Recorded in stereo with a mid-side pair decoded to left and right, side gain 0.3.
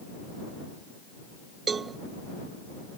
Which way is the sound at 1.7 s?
60° right.